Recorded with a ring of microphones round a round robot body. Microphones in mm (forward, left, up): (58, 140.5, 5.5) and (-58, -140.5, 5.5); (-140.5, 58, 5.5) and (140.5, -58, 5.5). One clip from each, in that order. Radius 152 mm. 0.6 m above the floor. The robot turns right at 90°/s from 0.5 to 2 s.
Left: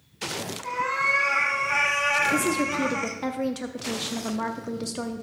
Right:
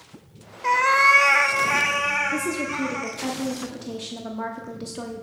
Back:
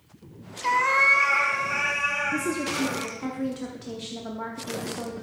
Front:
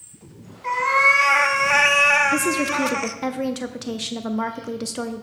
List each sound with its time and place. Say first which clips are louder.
0.6 s a cat meowing: right 8 dB, front 3 dB; 140° right, 0.8 m; by 3.2 s 20° right, 0.8 m
2.3 s a woman speaking: left 2 dB, front 7 dB; straight ahead, 0.6 m